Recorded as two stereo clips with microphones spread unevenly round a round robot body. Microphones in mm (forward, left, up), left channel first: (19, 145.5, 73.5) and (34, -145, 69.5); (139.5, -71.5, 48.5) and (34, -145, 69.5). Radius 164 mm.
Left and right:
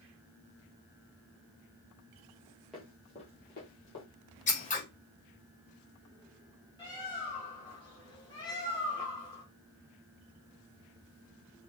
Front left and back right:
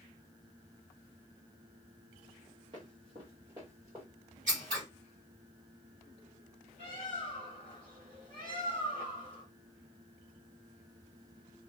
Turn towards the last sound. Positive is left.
turn(degrees=170)